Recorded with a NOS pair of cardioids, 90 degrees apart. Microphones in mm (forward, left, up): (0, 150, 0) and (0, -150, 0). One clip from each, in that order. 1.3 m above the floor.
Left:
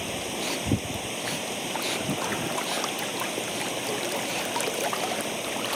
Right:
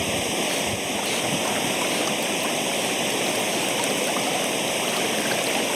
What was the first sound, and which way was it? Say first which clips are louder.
Running water: right 6 dB; 50° right.